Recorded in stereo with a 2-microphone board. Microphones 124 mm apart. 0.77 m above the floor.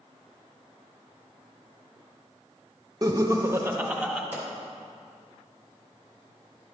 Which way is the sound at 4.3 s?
15° right (ahead or behind).